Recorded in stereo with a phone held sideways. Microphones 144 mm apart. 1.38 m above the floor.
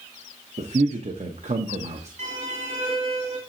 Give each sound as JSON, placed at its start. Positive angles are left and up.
{"t": 0.6, "sound": "a man speaking", "side_deg": -55, "distance_m": 0.7}
{"t": 2.2, "sound": "a violin", "side_deg": -65, "distance_m": 2.0}